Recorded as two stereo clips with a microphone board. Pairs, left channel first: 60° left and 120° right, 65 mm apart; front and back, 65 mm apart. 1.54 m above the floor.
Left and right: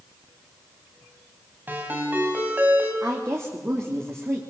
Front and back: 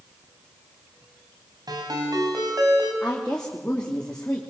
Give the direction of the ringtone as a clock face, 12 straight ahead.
6 o'clock.